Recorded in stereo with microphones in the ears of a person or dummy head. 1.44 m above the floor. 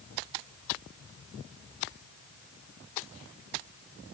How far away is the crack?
I don't hear a crack.